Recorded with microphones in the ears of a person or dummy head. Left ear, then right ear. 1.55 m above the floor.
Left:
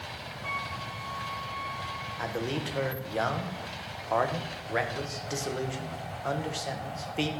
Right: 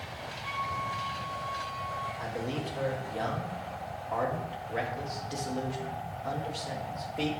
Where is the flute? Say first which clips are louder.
Right 1 dB; centre (ahead or behind), 4.5 m.